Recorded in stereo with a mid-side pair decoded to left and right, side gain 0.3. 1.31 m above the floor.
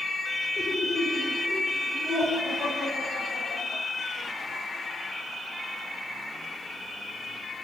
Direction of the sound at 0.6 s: 45° left.